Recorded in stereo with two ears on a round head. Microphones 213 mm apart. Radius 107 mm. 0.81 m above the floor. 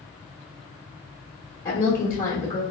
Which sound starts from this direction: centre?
A woman speaking, at 1.6 s.